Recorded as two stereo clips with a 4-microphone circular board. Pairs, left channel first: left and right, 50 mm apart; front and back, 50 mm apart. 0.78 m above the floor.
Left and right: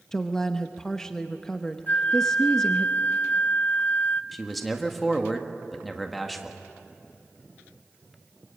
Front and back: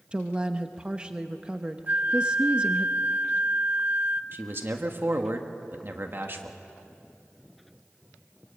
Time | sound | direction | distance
0.1 | a woman speaking | 150° left | 0.8 m
1.9 | a flute | 135° left | 0.6 m
4.3 | a man speaking | 175° left | 1.5 m